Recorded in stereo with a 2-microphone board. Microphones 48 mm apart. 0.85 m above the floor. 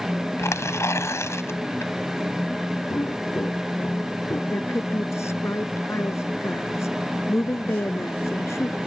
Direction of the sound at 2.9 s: 75° left (ahead or behind).